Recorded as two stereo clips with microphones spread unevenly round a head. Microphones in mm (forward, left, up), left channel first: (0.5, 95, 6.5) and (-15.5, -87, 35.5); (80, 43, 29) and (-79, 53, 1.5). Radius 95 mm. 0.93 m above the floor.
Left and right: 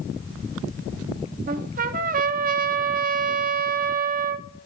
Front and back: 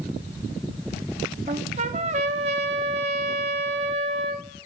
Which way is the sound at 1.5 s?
125° right.